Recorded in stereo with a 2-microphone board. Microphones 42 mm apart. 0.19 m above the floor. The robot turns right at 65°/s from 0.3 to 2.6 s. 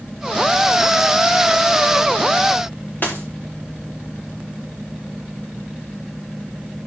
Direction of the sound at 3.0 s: 45° left (ahead or behind).